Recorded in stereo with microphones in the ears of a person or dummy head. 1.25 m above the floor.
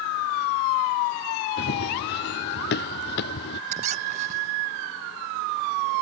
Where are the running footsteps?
60° left (ahead or behind).